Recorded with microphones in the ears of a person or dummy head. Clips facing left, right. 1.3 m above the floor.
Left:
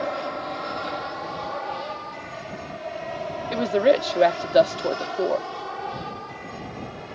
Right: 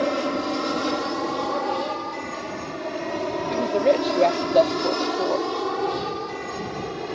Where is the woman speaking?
15° left (ahead or behind).